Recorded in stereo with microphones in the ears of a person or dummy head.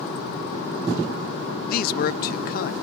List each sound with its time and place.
1.7 s a man speaking: 45° left (ahead or behind)